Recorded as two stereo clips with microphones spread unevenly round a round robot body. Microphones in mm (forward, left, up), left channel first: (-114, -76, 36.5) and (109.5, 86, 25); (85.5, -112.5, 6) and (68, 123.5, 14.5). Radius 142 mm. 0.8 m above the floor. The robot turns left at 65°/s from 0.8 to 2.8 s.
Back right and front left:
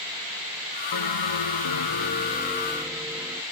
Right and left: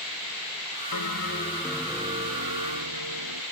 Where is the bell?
120° right; by 3.4 s 120° left.